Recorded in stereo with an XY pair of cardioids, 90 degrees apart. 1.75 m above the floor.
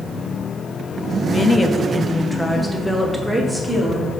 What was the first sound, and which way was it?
A woman speaking, 40° left.